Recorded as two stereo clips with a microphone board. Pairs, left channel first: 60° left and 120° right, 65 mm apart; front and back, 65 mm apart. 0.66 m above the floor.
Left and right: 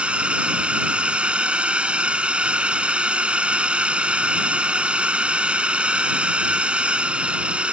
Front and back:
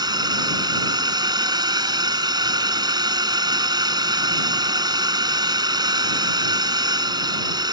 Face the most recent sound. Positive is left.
turn(degrees=165)